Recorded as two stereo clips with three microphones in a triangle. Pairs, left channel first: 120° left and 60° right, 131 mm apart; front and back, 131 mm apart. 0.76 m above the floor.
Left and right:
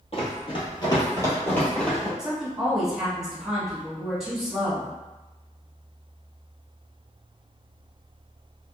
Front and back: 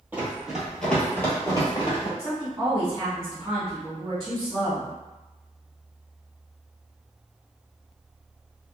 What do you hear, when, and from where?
0.1 s running footsteps: 110° left, 1.1 m; by 2.1 s 30° left, 1.1 m
2.2 s a woman speaking: 145° right, 1.1 m